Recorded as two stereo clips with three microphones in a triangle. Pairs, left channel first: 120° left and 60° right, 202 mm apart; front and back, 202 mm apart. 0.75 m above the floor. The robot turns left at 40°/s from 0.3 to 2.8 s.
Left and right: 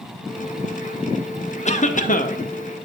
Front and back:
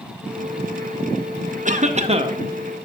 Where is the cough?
155° left, 0.7 m; by 2.4 s 125° left, 0.7 m.